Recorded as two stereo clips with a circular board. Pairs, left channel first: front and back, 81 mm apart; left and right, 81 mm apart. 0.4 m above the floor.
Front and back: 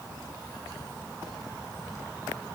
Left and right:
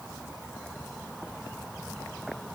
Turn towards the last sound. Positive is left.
No sound to turn to.